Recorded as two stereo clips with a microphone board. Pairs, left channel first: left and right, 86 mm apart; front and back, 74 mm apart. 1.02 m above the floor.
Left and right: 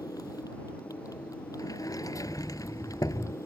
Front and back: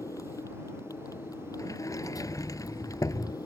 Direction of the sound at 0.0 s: 45° left.